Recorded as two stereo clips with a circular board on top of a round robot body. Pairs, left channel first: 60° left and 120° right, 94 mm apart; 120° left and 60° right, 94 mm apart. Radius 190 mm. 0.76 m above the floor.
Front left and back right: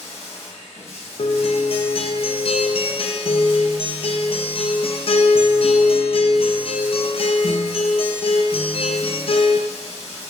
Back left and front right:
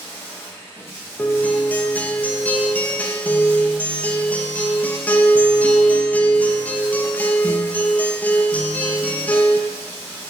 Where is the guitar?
45° left, 0.8 m.